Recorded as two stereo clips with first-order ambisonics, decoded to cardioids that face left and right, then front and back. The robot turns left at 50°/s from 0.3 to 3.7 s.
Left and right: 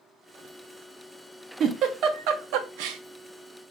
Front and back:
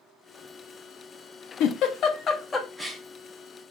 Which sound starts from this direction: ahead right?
A giggle, at 1.6 s.